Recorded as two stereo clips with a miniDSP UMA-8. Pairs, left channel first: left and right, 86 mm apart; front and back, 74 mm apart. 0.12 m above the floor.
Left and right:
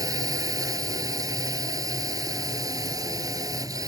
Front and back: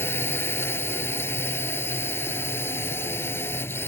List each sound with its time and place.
0.0 s a drone: 55° right